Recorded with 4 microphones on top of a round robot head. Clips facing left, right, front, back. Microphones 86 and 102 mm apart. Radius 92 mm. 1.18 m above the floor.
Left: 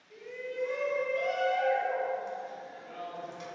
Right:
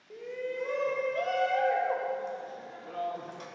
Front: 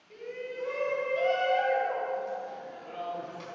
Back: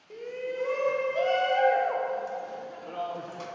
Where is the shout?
130° right, 1.0 m.